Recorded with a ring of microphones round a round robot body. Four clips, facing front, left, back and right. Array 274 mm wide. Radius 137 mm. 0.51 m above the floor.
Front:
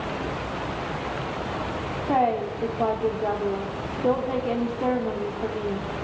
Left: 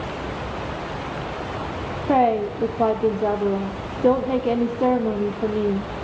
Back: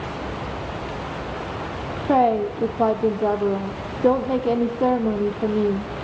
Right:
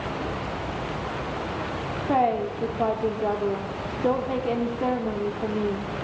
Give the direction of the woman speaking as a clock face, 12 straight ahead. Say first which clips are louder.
Left 4 dB, back 5 dB; 7 o'clock.